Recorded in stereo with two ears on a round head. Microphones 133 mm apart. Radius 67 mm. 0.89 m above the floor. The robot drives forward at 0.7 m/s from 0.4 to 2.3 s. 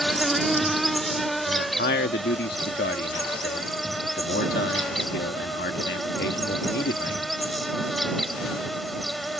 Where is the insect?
Centre (ahead or behind).